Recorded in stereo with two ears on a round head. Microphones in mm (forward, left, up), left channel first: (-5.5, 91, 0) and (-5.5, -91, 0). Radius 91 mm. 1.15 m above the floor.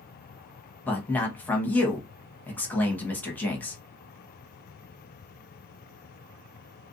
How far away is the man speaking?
About 0.9 m.